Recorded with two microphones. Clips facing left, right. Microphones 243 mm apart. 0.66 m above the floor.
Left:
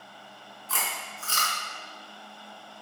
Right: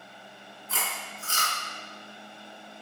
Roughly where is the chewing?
Left.